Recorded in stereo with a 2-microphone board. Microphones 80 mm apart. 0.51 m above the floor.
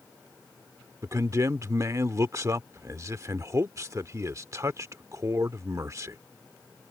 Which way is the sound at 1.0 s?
40° right (ahead or behind).